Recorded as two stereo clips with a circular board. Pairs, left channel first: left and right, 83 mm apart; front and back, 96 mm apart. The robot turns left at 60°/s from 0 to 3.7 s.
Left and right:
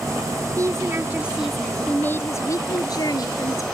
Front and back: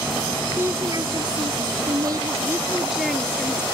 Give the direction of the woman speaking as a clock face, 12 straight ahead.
4 o'clock.